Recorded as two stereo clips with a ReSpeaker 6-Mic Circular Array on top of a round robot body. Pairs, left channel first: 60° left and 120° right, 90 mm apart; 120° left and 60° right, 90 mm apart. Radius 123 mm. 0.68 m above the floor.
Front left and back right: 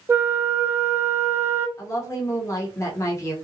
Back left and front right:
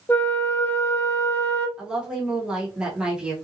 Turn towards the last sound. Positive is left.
turn(degrees=15)